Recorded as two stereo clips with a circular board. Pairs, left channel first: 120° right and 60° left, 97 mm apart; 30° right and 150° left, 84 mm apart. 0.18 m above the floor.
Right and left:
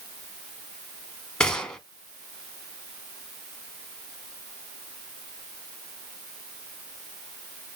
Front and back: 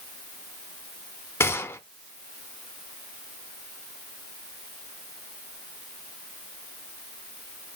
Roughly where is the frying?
No frying in this recording.